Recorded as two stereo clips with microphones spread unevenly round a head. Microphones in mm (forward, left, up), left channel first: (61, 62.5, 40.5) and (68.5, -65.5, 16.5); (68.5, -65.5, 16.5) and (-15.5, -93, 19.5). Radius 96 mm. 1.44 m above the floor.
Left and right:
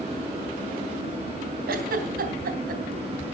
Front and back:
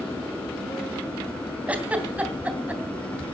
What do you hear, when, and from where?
1.7 s a giggle: 90° right, 3 m